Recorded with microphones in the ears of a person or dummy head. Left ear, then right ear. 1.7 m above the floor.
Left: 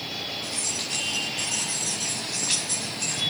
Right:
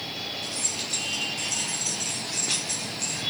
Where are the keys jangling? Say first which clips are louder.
Left 1 dB; centre (ahead or behind), 4.5 m; by 3.2 s 15° left (ahead or behind), 3 m.